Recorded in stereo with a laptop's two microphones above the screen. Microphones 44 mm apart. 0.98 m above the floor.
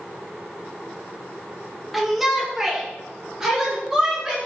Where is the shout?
Centre (ahead or behind), 1.0 m; by 4.4 s 10° right (ahead or behind), 2.5 m.